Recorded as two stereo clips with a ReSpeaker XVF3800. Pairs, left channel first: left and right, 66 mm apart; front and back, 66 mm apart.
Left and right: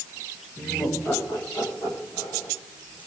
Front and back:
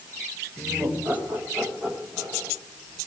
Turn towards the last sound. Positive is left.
turn(degrees=110)